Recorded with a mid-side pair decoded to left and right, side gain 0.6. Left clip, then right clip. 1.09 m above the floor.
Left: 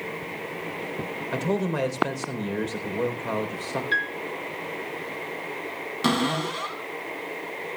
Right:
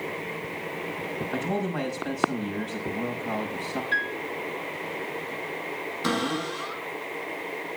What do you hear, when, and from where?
1.3 s a man speaking: 65° left, 3.5 m
3.9 s a piano: 30° left, 3.5 m
6.0 s a cupboard door: 65° left, 7 m